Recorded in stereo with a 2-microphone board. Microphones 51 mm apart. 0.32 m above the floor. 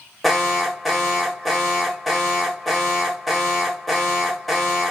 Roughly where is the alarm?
Centre.